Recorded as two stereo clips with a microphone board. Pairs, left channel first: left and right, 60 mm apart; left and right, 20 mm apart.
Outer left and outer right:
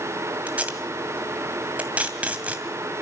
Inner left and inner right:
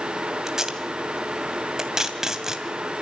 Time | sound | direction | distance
0.5 | tape being pulled | 25° right (ahead or behind) | 2 m